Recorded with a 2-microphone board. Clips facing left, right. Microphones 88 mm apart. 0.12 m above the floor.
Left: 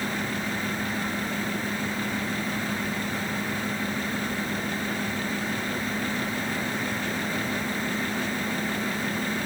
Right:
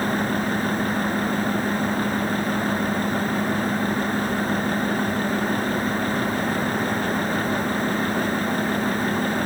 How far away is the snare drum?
No snare drum in this recording.